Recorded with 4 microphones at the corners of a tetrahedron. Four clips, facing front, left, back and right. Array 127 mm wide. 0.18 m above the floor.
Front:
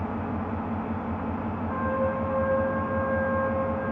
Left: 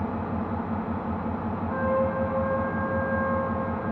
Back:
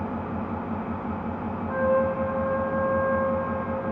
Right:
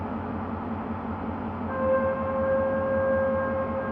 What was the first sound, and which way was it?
An engine running, 95° left.